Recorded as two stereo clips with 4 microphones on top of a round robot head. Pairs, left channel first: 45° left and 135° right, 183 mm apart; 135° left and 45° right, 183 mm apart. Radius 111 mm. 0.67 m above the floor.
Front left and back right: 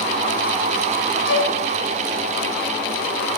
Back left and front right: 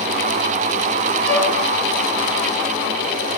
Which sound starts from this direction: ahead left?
A violin, at 1.2 s.